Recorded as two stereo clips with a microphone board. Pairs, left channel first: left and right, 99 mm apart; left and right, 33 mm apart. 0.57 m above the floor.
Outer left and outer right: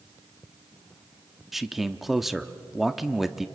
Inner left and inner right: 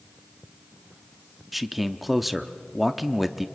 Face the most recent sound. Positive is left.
turn(degrees=0)  # may be behind; listen again after turning